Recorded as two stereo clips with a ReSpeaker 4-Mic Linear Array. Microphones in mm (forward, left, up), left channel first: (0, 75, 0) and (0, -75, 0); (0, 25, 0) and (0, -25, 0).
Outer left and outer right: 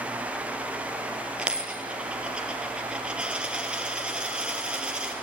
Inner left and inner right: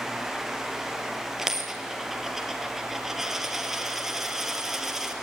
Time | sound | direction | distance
1.4 | a dropped coin | 5° right (ahead or behind) | 3 m